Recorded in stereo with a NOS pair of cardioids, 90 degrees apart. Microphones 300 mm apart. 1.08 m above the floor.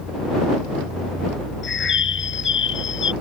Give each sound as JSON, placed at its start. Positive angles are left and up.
{"t": 1.6, "sound": "a bird", "azimuth_deg": 40}